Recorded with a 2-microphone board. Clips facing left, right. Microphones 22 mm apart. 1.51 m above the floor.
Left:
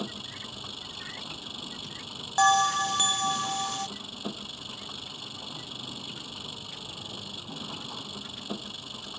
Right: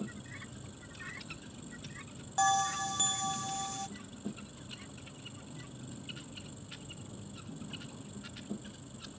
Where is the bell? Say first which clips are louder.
Left 8 dB; 35° left (ahead or behind).